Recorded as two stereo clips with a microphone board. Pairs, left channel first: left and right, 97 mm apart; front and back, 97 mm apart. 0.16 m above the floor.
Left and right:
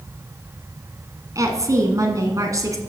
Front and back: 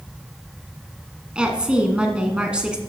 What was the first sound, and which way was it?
A woman speaking, 105° right.